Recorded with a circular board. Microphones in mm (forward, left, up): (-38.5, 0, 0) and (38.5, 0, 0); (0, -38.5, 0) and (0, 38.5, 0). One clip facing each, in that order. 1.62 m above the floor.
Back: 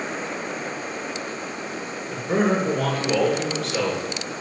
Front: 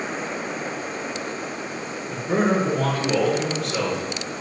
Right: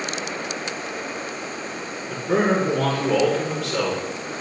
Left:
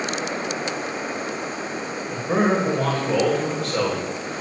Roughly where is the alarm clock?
I don't hear an alarm clock.